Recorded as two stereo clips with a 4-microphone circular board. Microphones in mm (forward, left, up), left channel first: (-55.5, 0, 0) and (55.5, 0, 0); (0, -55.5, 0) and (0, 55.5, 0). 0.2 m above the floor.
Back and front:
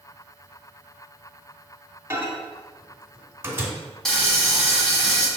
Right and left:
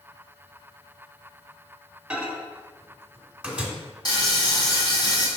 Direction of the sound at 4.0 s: 95° right.